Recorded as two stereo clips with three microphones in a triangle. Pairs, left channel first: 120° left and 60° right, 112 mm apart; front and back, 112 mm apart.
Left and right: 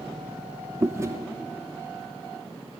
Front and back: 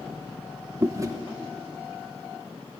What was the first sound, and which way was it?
Chewing, 120° right.